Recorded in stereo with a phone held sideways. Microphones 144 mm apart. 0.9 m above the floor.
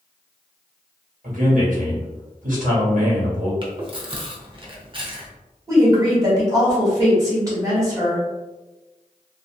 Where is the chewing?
35° right (ahead or behind), 0.7 m.